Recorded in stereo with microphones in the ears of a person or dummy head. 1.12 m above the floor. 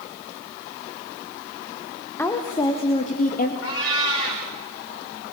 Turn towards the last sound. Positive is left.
turn(degrees=75)  # may be behind; listen again after turning